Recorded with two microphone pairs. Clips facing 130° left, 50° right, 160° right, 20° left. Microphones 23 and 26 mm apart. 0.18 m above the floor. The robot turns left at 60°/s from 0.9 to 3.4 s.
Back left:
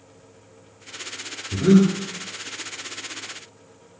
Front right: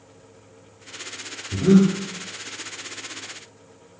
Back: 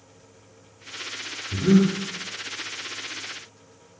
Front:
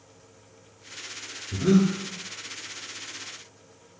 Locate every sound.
1.5 s breathing: 105° left, 0.6 m; by 1.9 s 80° left, 0.6 m